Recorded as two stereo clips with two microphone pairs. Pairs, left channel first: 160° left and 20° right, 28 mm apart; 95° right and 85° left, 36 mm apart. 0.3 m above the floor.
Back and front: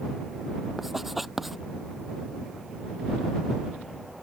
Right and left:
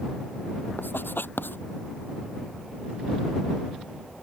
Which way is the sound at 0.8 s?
105° right.